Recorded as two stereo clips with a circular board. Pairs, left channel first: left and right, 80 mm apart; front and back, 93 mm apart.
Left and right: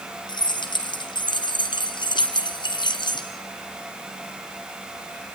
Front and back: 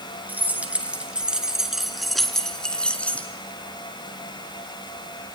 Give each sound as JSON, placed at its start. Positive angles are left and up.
{"t": 0.3, "sound": "keys jangling", "azimuth_deg": 110, "distance_m": 3.5}